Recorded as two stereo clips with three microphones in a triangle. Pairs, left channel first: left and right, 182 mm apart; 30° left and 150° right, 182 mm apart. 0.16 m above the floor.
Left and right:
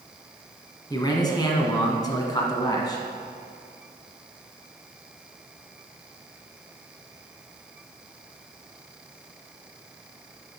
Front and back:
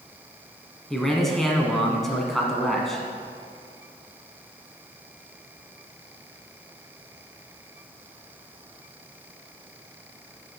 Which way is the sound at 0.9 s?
115° left.